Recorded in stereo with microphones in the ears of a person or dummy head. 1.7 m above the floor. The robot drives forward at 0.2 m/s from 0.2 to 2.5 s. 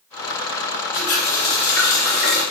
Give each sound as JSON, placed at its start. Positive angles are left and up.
{"t": 0.9, "sound": "a running tap", "side_deg": 55, "distance_m": 1.2}